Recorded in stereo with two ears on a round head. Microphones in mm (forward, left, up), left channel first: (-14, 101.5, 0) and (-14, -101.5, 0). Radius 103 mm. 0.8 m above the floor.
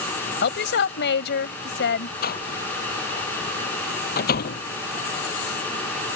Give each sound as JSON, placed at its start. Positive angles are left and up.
{"t": 0.4, "sound": "a woman speaking", "side_deg": 55}
{"t": 2.2, "sound": "a door slam", "side_deg": 45}